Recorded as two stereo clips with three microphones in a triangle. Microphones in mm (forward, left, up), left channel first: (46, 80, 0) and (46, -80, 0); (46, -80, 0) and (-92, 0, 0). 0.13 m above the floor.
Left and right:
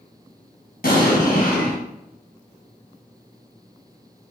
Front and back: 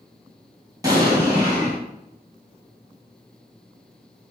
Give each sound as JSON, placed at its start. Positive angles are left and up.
{"t": 0.8, "sound": "an explosion", "azimuth_deg": 80, "distance_m": 1.8}